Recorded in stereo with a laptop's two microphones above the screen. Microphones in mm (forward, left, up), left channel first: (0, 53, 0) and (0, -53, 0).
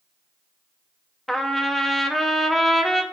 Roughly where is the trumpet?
Centre.